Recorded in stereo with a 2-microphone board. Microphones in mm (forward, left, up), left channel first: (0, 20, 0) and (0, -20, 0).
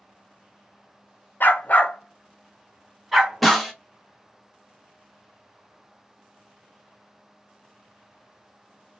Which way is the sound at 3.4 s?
Centre (ahead or behind).